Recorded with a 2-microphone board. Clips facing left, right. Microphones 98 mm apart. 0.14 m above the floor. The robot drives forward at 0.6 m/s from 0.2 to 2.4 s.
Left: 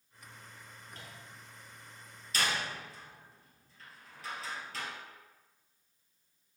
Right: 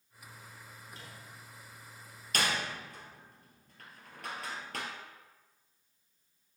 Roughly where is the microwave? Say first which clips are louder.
Left 1 dB; left.